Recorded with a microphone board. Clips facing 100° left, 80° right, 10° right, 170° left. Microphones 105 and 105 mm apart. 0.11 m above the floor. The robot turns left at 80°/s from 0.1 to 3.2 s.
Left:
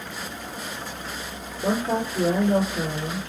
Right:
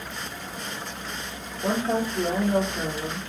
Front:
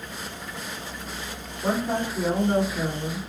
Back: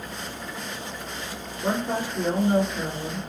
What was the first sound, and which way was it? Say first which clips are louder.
A woman speaking: left 1 dB, front 1 dB; 75° left.